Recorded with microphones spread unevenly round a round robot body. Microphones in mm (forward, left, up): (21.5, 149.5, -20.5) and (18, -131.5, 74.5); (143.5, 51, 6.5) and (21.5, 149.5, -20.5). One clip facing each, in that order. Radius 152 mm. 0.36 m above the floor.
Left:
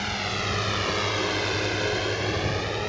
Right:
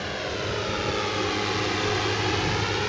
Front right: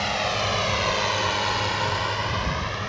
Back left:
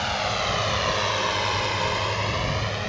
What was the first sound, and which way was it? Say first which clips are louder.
A drone: right 2 dB, front right 1 dB; 40° left.